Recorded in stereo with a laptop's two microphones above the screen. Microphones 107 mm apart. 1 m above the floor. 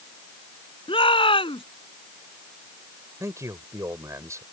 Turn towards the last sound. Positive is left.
turn(degrees=-30)  # may be behind; listen again after turning